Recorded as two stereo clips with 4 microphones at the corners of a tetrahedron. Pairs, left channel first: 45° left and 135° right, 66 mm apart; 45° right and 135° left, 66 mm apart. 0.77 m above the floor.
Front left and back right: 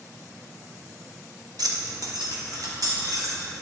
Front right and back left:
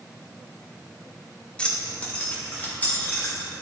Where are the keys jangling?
120° right, 1.2 m; by 3.5 s 115° right, 4 m.